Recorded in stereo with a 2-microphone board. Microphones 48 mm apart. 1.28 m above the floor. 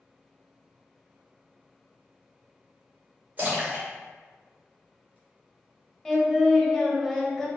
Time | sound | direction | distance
3.4 | a splash | 30° right (ahead or behind) | 2.0 m
6.0 | singing | 10° left (ahead or behind) | 0.9 m